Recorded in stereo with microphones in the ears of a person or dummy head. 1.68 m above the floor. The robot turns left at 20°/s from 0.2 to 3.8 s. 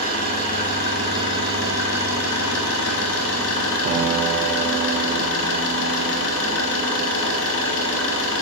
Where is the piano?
40° right (ahead or behind), 1.8 m.